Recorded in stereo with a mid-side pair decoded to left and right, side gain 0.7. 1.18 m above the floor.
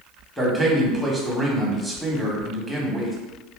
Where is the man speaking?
5° right, 1.4 m.